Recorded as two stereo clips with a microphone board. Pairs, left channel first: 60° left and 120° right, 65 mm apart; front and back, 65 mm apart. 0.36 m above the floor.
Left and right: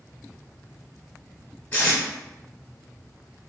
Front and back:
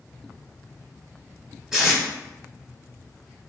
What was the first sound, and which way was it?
Tape being pulled, 105° left.